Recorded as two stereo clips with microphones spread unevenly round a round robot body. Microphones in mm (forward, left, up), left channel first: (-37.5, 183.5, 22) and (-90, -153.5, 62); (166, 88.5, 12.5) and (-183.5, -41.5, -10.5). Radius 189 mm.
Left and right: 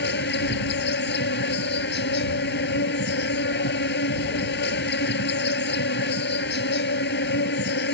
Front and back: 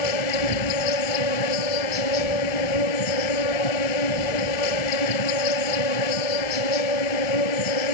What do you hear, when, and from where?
0.0 s an insect: 15° left